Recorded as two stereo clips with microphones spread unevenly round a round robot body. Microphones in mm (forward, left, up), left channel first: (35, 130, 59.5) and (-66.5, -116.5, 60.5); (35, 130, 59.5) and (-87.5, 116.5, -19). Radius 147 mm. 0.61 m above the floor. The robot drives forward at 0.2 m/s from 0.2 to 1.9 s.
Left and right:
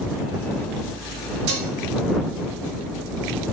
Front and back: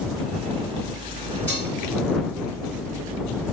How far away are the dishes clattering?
About 2.5 m.